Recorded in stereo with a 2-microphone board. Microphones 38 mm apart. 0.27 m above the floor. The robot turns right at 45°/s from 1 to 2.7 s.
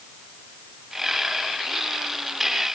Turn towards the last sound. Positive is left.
No sound to turn to.